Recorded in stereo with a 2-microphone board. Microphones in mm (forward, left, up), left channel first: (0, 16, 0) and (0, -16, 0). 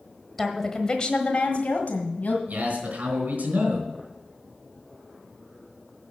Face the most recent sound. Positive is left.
turn(degrees=-65)  # may be behind; listen again after turning